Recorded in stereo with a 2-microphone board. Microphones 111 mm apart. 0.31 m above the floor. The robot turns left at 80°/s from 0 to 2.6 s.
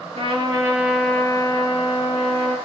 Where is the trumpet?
115° right, 5.5 m; by 2.6 s 50° left, 5.5 m.